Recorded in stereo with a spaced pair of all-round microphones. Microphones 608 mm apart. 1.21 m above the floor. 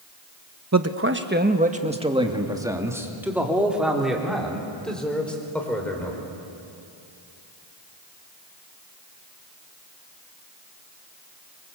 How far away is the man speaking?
About 1.1 m.